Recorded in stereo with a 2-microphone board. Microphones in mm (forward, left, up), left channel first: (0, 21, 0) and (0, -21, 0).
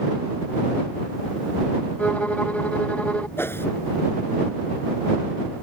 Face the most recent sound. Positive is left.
turn(degrees=70)  # may be behind; listen again after turning